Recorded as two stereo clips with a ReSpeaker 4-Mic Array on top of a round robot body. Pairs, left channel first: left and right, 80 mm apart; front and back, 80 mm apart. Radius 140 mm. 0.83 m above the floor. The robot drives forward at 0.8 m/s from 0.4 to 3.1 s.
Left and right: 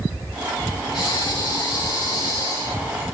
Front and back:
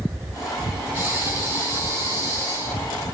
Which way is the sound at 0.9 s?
115° left.